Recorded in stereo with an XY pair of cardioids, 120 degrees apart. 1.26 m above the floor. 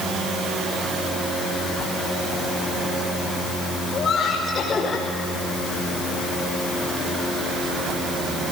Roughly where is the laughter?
Ahead left.